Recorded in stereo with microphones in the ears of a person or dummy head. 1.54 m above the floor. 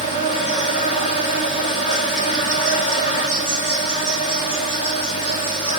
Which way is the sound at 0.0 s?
35° left (ahead or behind).